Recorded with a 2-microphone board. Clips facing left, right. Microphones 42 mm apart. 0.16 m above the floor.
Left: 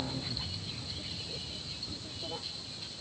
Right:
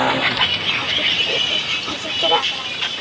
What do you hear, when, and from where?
0.0 s a vehicle: 85° right